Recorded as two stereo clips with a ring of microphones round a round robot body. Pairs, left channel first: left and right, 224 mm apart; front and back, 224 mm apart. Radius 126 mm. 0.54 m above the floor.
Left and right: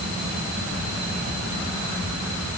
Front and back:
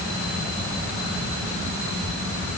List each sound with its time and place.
Only background noise.